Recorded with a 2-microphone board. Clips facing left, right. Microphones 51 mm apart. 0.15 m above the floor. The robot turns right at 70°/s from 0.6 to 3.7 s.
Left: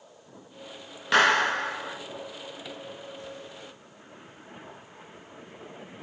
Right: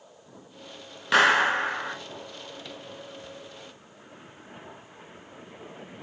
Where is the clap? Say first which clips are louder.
Right 1 dB; 175° right, 1.8 m; by 2.0 s 115° right, 1.8 m.